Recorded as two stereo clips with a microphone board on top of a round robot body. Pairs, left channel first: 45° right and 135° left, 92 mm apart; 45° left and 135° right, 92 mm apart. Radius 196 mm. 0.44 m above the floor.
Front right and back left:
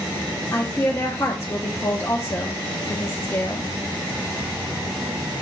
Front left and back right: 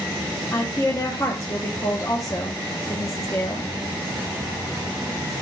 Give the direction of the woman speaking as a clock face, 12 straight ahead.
12 o'clock.